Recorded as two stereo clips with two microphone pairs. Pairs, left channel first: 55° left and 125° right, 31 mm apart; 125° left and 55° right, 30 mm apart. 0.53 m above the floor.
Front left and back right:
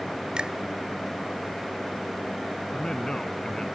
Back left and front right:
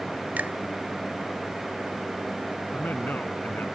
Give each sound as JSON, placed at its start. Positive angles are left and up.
{"t": 0.4, "sound": "a finger snap", "azimuth_deg": -70}
{"t": 2.7, "sound": "a man speaking", "azimuth_deg": 125}